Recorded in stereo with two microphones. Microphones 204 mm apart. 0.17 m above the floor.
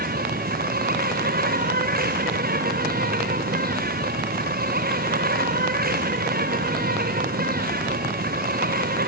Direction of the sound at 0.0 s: 50° right (ahead or behind).